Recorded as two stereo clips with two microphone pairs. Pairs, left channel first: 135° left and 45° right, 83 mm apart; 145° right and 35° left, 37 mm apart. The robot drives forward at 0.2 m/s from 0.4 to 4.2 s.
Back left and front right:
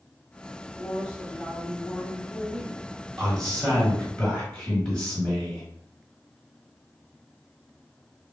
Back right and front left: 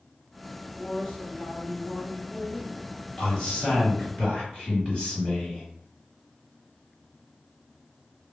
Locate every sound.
0.6 s a man speaking: 165° right, 1.2 m; by 2.8 s 175° right, 1.4 m
3.2 s a man speaking: 155° right, 1.3 m; by 5.6 s 160° right, 1.4 m